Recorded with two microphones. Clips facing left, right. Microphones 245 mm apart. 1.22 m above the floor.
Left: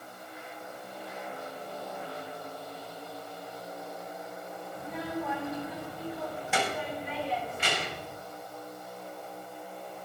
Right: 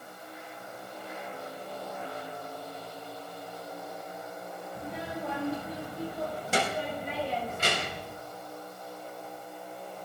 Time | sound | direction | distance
4.8 | a child speaking | 30° right (ahead or behind) | 6 m